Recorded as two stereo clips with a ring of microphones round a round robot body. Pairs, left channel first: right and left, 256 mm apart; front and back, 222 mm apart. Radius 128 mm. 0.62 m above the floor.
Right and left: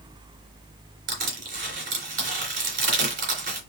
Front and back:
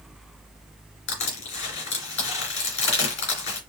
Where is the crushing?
30° left, 2.5 m.